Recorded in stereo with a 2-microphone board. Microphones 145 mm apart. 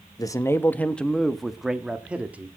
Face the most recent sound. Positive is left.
turn(degrees=-10)  # may be behind; listen again after turning